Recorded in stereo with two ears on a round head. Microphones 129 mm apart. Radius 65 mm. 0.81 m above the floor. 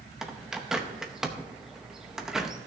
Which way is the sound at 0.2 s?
5° right (ahead or behind).